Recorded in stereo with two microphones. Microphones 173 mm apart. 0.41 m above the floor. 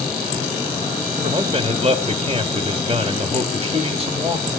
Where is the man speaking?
40° right (ahead or behind), 1.3 m.